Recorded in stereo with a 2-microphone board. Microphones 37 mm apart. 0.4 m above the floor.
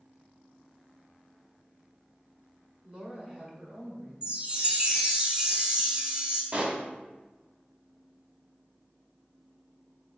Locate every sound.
2.8 s a woman speaking: 30° right (ahead or behind), 1.0 m; by 4.1 s 20° right (ahead or behind), 1.8 m
4.2 s a chime: 25° right (ahead or behind), 0.9 m
6.5 s a pop: 30° right (ahead or behind), 0.8 m